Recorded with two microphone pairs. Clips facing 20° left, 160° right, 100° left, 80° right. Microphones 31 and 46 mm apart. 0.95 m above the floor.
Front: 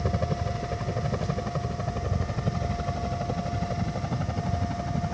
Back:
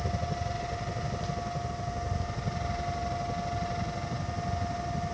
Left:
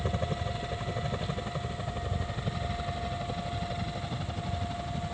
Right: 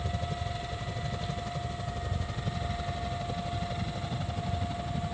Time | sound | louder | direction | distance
0.0 | a helicopter | front 4 dB, left 3 dB | 50° left | ?